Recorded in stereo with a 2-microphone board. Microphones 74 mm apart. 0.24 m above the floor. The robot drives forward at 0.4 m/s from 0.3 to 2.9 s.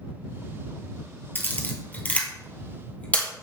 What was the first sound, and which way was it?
A camera shutter, 25° left (ahead or behind).